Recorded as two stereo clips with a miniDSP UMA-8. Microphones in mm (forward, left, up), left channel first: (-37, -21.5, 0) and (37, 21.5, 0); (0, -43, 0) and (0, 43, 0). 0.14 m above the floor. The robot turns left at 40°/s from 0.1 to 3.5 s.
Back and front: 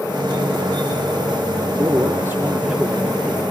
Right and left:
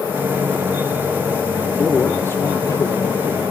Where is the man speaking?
15° right, 3.5 m; by 3.4 s 85° right, 3.5 m.